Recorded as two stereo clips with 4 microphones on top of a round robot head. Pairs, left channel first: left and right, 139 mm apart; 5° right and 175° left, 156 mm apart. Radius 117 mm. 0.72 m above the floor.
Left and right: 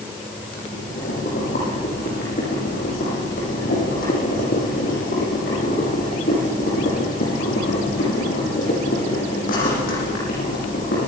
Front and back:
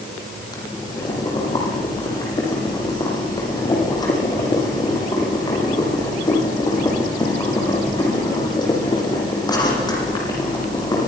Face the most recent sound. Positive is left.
turn(degrees=60)